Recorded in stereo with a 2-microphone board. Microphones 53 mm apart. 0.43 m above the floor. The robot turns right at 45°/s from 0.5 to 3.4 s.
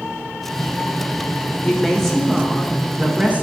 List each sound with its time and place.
1.6 s a woman speaking: 155° left, 1.5 m; by 3.4 s 125° right, 1.5 m